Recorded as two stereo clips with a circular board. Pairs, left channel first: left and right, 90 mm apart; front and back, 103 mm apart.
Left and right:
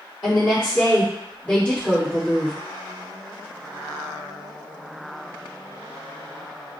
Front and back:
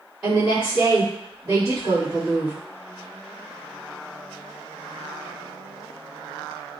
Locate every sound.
0.2 s a woman speaking: 110° left, 1.7 m; by 2.6 s straight behind, 1.5 m